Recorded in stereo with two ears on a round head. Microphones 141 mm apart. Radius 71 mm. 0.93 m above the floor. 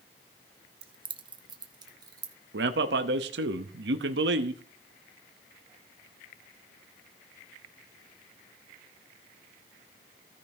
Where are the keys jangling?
35° right (ahead or behind), 0.6 m; by 2.3 s 25° right (ahead or behind), 1.4 m.